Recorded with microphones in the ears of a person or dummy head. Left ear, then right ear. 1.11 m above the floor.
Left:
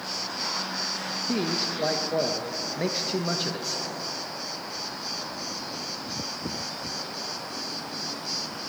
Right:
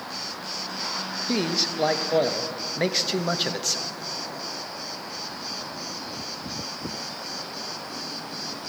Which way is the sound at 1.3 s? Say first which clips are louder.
Right 4 dB; 25° right (ahead or behind).